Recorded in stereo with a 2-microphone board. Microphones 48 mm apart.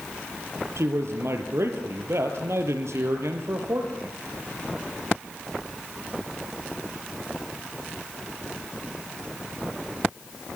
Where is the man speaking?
75° right (ahead or behind), 4 m.